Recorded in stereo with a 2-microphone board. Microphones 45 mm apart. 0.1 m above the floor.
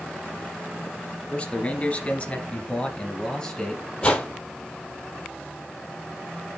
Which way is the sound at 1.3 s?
25° left (ahead or behind).